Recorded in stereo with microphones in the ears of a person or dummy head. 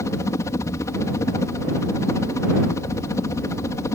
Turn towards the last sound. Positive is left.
turn(degrees=15)  # may be behind; listen again after turning